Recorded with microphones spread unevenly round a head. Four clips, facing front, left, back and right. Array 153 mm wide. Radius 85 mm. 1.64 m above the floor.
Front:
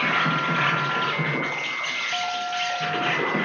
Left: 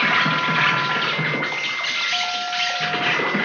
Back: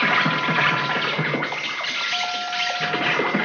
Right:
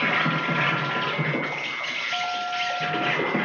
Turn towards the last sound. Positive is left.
turn(degrees=-165)